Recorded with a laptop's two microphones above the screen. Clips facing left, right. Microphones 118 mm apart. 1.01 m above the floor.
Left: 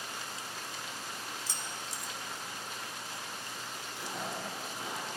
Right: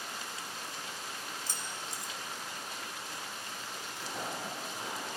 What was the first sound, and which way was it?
Keys jangling, 50° right (ahead or behind).